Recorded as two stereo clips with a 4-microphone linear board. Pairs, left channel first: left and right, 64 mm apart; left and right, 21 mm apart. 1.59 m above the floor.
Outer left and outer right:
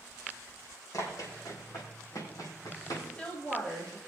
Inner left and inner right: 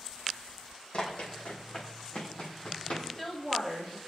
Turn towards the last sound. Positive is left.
turn(degrees=20)  # may be behind; listen again after turning